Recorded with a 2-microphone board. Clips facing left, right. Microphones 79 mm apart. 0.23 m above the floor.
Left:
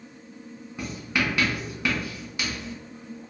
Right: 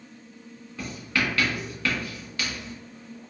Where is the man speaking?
I don't hear a man speaking.